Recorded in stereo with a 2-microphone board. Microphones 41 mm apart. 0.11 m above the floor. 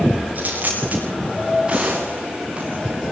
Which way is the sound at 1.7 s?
25° right (ahead or behind).